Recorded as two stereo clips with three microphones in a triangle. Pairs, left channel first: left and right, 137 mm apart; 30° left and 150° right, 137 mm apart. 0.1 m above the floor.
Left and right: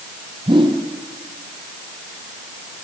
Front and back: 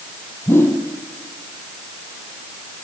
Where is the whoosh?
40° right, 2.5 m.